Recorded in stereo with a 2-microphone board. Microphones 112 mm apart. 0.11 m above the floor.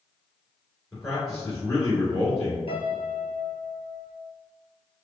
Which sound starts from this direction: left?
A piano, at 2.7 s.